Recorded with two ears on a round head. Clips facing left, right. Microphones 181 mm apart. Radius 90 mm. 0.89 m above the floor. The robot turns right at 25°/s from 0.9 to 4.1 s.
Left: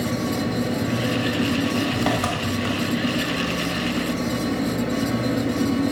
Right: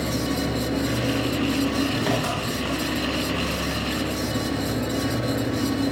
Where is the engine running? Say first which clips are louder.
Left 1 dB; 55° left, 1.9 m; by 5.9 s 135° left, 1.9 m.